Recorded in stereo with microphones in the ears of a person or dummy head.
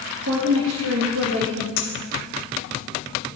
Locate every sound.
0.2 s a woman speaking: 60° right (ahead or behind), 0.9 m; by 1.7 s 90° right, 1.6 m
1.8 s a clink: 50° left (ahead or behind), 1.9 m